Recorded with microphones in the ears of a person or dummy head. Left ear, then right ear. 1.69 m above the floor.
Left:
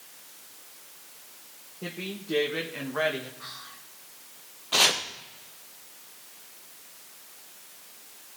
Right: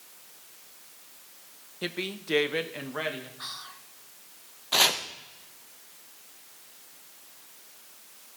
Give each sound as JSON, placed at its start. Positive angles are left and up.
{"t": 1.8, "sound": "a woman speaking", "side_deg": -55, "distance_m": 0.9}
{"t": 3.4, "sound": "whispering", "side_deg": -70, "distance_m": 1.4}
{"t": 4.7, "sound": "chopping", "side_deg": -10, "distance_m": 0.9}